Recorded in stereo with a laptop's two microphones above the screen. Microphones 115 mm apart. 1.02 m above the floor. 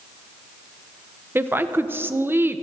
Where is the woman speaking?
20° right (ahead or behind), 0.7 m.